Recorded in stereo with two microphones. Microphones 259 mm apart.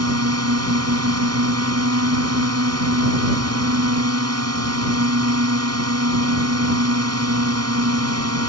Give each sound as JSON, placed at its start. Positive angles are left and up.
{"t": 0.0, "sound": "a drone", "side_deg": -70}